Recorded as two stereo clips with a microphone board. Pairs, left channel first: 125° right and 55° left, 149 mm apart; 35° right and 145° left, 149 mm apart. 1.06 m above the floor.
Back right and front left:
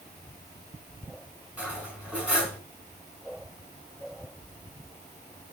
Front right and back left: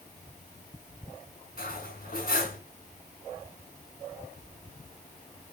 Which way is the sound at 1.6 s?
25° right.